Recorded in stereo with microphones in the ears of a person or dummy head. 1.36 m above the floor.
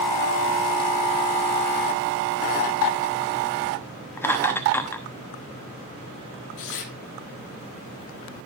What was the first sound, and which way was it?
Laughter, 10° left (ahead or behind).